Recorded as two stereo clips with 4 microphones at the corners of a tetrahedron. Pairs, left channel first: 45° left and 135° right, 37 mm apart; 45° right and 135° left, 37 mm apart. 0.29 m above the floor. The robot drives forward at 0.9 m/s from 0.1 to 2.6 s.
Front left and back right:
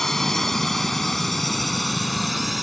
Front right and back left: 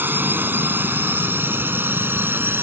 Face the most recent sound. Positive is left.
turn(degrees=135)